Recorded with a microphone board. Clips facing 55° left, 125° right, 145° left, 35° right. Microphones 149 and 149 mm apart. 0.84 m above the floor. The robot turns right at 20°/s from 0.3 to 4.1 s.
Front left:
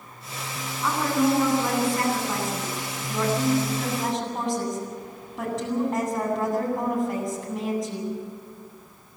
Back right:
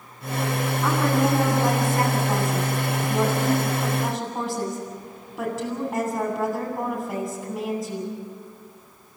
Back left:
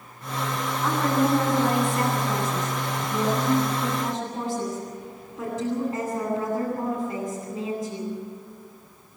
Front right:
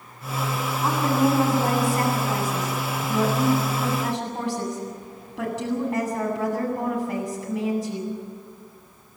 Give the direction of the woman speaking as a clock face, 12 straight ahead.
3 o'clock.